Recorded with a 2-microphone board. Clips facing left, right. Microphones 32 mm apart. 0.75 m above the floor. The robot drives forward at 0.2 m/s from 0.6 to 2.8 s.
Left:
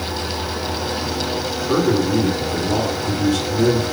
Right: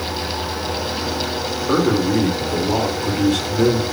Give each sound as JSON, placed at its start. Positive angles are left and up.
{"t": 1.7, "sound": "a man speaking", "side_deg": -60, "distance_m": 1.5}